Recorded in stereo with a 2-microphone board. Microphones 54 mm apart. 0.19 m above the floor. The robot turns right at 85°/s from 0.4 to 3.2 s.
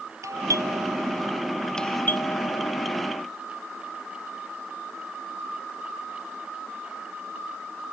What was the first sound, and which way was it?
A doorbell, 105° right.